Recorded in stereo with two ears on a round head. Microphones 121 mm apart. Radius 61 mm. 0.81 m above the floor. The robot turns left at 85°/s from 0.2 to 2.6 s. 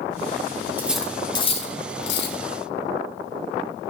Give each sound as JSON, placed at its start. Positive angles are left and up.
{"t": 0.8, "sound": "cutlery clinking", "side_deg": -15, "distance_m": 4.5}